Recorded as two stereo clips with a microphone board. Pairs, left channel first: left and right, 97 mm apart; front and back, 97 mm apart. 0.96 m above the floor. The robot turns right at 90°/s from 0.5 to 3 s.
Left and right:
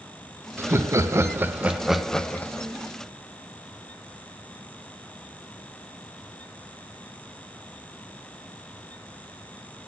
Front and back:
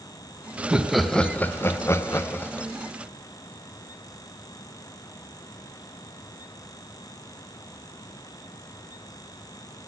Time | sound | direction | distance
0.6 | laughter | 125° right | 0.7 m